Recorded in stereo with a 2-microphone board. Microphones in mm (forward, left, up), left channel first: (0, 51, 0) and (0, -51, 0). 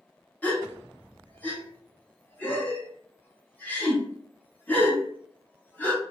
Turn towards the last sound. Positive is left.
turn(degrees=15)  # may be behind; listen again after turning